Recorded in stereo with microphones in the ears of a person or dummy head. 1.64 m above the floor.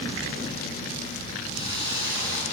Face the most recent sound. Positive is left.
turn(degrees=30)  # may be behind; listen again after turning